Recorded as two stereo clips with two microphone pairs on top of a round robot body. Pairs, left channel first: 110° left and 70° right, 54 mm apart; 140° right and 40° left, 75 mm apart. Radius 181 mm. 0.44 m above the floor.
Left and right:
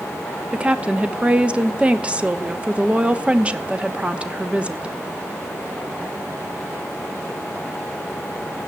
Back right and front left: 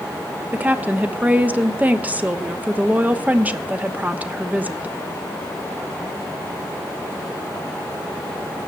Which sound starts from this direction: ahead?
A woman speaking, at 0.5 s.